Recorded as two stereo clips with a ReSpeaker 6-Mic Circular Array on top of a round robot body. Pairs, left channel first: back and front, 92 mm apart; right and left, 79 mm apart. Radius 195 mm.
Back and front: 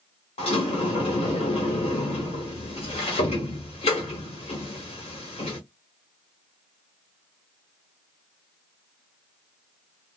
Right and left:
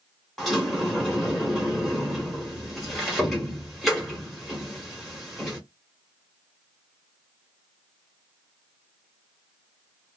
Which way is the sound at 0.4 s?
Straight behind.